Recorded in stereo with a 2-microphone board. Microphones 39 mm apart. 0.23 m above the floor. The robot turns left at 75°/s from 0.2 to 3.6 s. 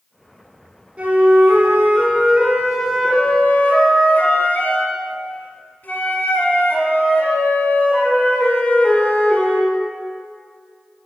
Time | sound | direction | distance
1.0 | a flute | 45° right | 1.9 m